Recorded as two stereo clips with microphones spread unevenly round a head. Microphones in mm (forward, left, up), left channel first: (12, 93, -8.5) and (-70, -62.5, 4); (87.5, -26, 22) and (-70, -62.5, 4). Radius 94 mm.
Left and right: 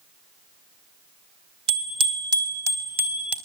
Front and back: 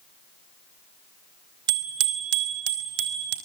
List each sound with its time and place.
1.7 s a bicycle bell: 170° right, 3 m; by 3.4 s 160° left, 4 m